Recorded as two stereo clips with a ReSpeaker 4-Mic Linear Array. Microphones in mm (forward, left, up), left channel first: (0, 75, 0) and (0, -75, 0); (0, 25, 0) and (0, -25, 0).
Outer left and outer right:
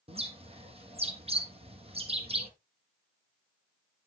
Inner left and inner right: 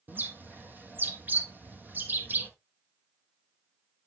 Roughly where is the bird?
Right.